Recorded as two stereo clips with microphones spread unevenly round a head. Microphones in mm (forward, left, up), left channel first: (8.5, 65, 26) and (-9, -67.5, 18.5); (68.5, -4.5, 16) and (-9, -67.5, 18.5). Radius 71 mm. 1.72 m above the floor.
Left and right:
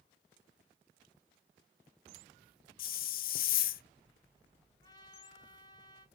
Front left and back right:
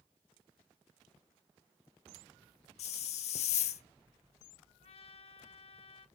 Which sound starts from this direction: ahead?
A trumpet, at 4.8 s.